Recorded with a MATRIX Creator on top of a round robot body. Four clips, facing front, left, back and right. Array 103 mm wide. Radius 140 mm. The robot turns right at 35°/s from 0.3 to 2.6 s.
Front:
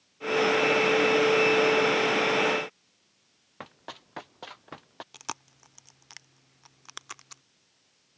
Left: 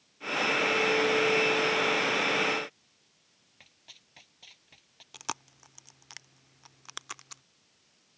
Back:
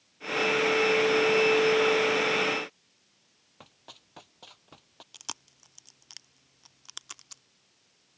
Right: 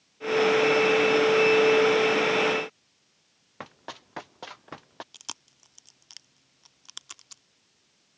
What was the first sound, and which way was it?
Running footsteps, 60° right.